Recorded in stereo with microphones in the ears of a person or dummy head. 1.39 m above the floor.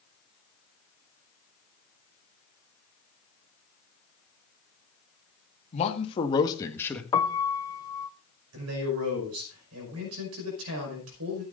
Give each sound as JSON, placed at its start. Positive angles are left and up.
{"t": 5.7, "sound": "a man speaking", "side_deg": 35, "distance_m": 2.0}
{"t": 7.1, "sound": "a piano", "side_deg": 20, "distance_m": 0.7}
{"t": 8.5, "sound": "a man speaking", "side_deg": -85, "distance_m": 5.5}